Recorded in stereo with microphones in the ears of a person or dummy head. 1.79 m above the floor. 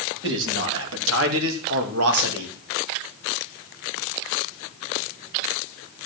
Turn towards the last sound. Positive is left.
turn(degrees=-70)  # may be behind; listen again after turning